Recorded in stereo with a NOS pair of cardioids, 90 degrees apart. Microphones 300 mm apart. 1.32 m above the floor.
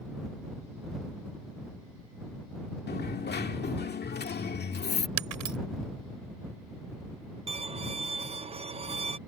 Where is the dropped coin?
35° left.